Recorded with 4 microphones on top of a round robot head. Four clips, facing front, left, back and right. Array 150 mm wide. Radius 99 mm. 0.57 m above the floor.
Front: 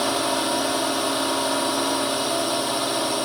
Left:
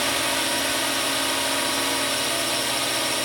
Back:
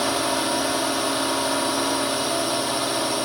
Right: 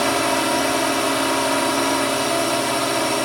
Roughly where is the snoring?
I don't hear snoring.